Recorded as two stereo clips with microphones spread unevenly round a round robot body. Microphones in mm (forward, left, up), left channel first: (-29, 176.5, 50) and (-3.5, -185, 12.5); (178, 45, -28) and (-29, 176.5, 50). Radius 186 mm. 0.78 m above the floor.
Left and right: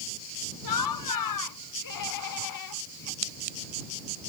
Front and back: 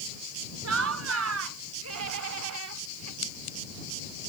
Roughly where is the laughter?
Behind left.